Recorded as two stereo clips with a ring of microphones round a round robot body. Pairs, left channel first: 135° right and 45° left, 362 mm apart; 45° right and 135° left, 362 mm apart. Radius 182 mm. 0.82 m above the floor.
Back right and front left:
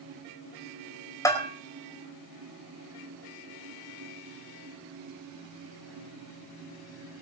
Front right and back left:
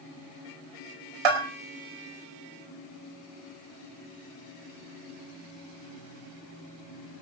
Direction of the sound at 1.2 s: 145° left.